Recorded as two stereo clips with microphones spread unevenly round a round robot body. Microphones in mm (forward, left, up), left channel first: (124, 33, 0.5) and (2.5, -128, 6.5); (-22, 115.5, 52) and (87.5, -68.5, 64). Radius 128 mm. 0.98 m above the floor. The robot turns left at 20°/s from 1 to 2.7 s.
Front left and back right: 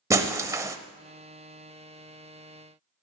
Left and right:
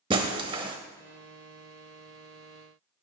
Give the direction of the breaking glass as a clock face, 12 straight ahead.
3 o'clock.